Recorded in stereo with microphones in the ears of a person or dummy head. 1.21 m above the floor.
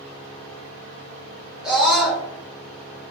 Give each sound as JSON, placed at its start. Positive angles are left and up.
{"t": 1.6, "sound": "a scream", "side_deg": 0, "distance_m": 1.1}